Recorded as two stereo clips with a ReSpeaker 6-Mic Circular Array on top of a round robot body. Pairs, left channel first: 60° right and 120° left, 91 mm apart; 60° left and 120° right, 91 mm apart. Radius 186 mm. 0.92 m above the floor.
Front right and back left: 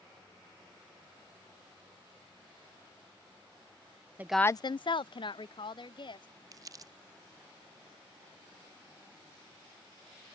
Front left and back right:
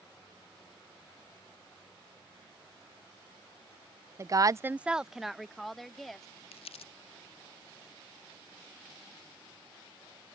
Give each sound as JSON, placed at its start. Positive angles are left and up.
{"t": 4.2, "sound": "a woman speaking", "azimuth_deg": -175}
{"t": 6.5, "sound": "crumpling", "azimuth_deg": 70}